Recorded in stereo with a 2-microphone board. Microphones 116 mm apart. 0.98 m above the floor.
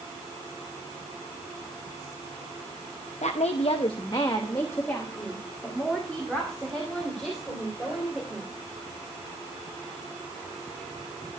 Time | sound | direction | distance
3.2 | a woman speaking | 80° left | 0.7 m